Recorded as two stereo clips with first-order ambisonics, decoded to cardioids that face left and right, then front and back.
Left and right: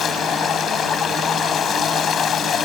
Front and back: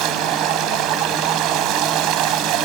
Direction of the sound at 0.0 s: 150° left.